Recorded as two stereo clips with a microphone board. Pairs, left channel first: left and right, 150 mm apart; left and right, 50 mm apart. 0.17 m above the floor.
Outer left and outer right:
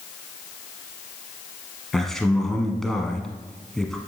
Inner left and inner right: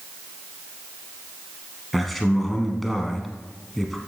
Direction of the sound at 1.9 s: 5° left (ahead or behind).